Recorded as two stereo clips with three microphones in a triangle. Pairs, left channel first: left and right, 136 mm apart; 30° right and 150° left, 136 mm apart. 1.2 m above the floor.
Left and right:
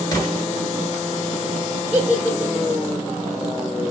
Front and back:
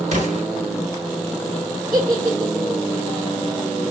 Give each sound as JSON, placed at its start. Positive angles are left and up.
{"t": 0.1, "sound": "an explosion", "azimuth_deg": 150, "distance_m": 1.3}
{"t": 1.9, "sound": "a giggle", "azimuth_deg": -165, "distance_m": 1.1}